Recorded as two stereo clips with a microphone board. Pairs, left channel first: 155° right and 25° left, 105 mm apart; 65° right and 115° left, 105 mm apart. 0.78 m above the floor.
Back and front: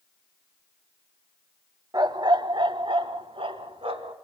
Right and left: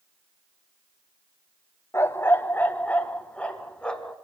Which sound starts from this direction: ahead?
A dog barking, at 1.9 s.